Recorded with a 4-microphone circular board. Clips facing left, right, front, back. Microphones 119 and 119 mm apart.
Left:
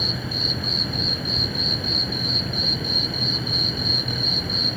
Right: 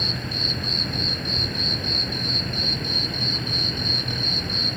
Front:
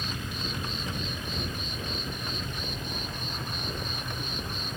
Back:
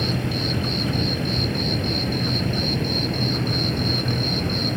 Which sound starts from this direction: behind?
An insect, at 0.0 s.